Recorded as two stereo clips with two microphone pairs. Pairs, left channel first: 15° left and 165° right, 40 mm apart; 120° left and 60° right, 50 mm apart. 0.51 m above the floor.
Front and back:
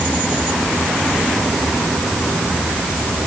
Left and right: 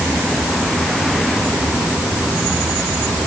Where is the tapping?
I don't hear tapping.